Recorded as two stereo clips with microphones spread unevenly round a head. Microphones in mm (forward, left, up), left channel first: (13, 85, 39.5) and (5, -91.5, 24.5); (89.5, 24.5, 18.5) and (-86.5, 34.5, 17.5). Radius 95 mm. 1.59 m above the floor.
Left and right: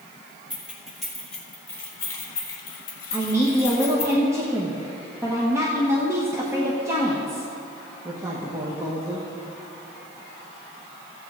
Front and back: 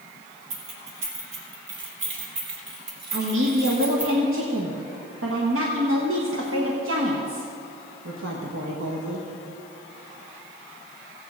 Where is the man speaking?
170° right, 1.3 m.